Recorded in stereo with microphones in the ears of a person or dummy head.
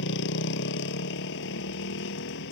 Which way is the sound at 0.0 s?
65° left (ahead or behind).